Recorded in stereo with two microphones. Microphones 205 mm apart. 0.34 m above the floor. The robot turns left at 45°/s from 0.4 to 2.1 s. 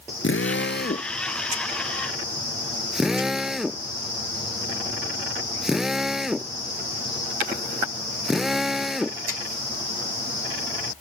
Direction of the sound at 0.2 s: 70° left (ahead or behind).